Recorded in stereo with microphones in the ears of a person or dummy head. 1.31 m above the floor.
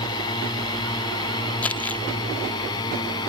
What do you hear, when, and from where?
0.0 s a drone: 20° left (ahead or behind)
1.6 s crumpling: 10° left (ahead or behind)